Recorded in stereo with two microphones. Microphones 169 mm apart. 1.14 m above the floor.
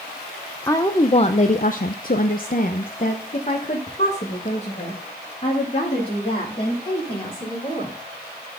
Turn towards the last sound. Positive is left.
turn(degrees=35)  # may be behind; listen again after turning